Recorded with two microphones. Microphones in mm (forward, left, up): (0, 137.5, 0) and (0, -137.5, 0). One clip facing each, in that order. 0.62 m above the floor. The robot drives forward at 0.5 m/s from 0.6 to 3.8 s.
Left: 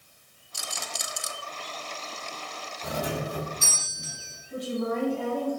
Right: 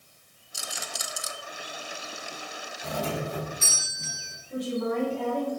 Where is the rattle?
Centre (ahead or behind), 0.9 m; by 1.3 s 5° right (ahead or behind), 0.5 m.